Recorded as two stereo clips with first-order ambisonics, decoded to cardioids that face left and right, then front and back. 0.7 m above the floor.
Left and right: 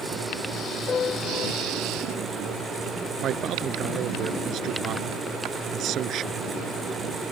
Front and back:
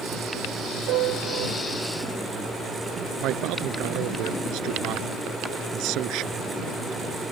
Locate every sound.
0.9 s a piano: 155° left
3.2 s a man speaking: 140° right